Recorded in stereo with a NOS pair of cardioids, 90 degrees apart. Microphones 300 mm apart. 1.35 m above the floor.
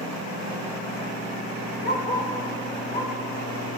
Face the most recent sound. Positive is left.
turn(degrees=20)